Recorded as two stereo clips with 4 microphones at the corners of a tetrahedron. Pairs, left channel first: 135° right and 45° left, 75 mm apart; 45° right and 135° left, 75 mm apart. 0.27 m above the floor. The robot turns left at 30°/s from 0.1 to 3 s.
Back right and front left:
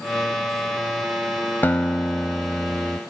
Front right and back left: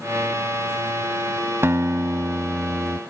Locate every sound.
1.6 s a guitar: 170° left; by 3.0 s 130° left